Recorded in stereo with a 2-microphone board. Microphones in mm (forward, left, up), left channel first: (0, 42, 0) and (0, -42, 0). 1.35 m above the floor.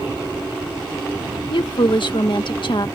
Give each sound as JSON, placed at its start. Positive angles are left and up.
{"t": 1.5, "sound": "a woman speaking", "side_deg": 65}